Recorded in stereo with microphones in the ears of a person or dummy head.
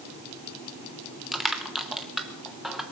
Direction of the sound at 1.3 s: 5° right (ahead or behind).